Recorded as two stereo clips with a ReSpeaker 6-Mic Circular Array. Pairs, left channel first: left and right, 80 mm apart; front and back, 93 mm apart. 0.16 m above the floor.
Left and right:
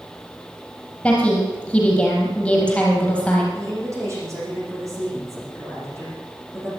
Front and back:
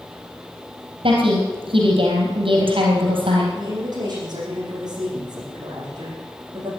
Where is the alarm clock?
No alarm clock in this recording.